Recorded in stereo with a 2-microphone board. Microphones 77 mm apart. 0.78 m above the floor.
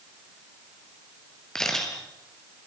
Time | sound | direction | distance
1.6 | a camera shutter | 10° left (ahead or behind) | 3.5 m